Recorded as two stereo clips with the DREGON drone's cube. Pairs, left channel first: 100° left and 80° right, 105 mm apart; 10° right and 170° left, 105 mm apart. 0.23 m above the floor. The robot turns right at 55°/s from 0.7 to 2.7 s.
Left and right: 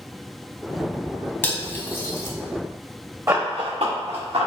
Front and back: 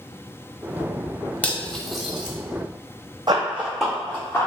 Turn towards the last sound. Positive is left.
turn(degrees=-75)